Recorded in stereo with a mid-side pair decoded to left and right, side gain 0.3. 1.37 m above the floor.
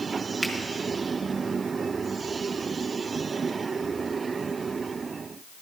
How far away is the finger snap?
About 1.5 m.